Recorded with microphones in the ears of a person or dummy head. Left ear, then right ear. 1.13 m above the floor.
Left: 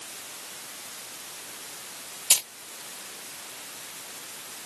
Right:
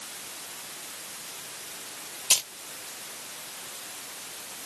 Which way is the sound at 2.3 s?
5° left (ahead or behind).